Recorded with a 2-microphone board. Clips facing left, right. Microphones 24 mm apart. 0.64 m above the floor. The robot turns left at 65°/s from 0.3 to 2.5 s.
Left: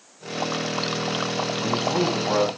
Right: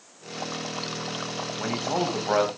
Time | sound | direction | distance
1.6 | a man speaking | 80° right | 4 m